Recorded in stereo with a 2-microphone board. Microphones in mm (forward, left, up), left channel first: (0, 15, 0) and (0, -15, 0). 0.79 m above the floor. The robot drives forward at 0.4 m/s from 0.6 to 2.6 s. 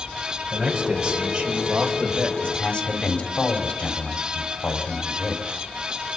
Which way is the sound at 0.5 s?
30° right (ahead or behind).